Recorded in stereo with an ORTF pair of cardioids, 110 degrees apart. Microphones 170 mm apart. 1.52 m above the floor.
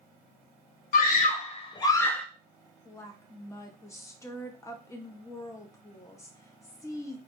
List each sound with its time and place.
0.9 s a scream: 60° left, 0.9 m; by 2.2 s 5° left, 0.6 m
2.9 s a woman speaking: 20° left, 0.8 m